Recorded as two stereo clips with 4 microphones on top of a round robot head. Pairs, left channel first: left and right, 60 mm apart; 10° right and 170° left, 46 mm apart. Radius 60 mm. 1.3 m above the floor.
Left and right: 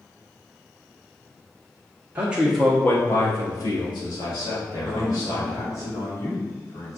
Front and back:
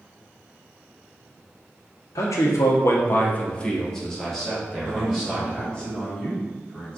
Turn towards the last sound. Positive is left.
turn(degrees=60)